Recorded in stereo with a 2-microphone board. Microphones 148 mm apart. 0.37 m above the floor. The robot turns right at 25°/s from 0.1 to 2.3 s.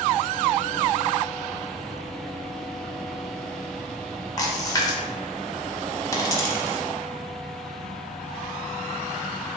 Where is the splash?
25° left (ahead or behind), 0.7 m.